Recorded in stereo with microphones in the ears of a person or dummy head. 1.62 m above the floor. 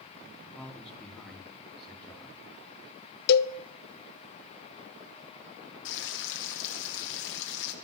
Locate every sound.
0.6 s a man speaking: 5° left (ahead or behind), 4 m
3.3 s a cowbell: 55° left (ahead or behind), 0.5 m
5.8 s frying: 55° left (ahead or behind), 1.1 m